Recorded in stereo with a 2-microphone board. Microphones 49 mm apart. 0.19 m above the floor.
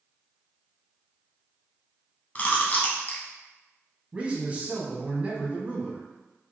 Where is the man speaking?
25° right (ahead or behind), 1.2 m.